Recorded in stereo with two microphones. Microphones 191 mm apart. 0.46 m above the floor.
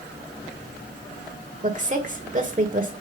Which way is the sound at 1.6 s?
40° right (ahead or behind).